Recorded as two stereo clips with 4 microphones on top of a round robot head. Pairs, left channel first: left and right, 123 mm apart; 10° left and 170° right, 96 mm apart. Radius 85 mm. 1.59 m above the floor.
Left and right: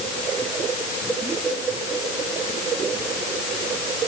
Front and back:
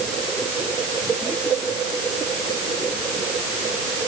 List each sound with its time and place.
Only background noise.